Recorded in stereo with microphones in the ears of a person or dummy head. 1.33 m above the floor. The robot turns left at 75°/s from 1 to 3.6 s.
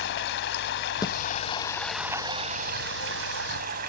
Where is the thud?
20° left (ahead or behind); by 1.2 s 30° left (ahead or behind).